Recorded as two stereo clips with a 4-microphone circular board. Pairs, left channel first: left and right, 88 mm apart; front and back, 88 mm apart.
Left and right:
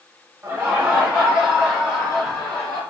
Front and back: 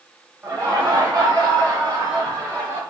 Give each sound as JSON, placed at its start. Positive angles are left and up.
{"t": 0.4, "sound": "laughter", "azimuth_deg": -140, "distance_m": 0.7}